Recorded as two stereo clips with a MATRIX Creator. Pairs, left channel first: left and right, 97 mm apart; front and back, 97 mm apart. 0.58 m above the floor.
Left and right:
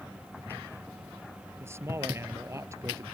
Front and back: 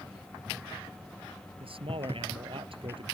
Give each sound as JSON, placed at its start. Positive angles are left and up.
{"t": 1.6, "sound": "a man speaking", "azimuth_deg": -155}